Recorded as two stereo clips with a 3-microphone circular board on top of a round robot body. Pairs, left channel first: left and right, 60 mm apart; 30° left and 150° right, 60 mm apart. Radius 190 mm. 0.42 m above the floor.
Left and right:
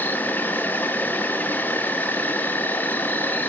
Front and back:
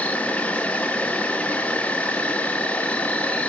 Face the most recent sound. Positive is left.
turn(degrees=70)